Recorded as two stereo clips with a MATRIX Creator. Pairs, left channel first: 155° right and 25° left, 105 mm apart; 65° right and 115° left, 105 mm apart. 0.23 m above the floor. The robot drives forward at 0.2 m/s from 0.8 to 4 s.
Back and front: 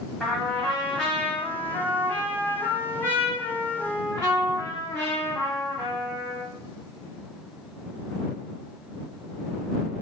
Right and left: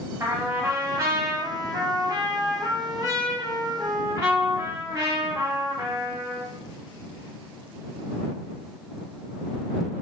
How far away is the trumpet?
About 1.0 m.